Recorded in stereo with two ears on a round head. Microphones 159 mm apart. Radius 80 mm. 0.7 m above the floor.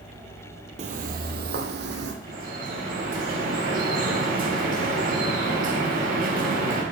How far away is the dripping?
About 4.5 m.